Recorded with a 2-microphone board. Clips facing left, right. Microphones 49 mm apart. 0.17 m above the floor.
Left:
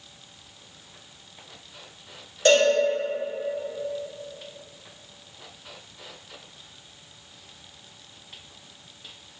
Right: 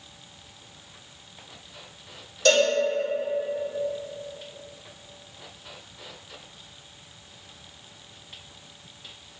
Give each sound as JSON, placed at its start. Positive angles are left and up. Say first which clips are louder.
{"t": 2.5, "sound": "a cowbell", "louder": "left 2 dB", "side_deg": 30, "distance_m": 1.9}